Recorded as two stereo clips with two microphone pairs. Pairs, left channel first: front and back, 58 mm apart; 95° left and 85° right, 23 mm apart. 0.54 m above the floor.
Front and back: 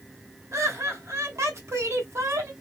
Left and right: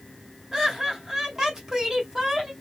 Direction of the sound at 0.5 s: 145° right.